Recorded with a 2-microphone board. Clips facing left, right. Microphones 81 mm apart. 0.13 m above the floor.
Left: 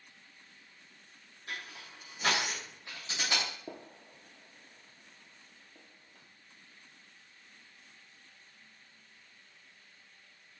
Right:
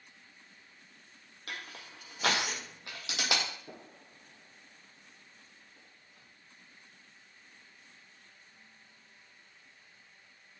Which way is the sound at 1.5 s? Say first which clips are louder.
Even; 70° right (ahead or behind).